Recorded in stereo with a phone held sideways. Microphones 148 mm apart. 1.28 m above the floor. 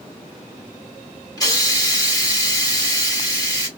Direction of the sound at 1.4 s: 25° left (ahead or behind).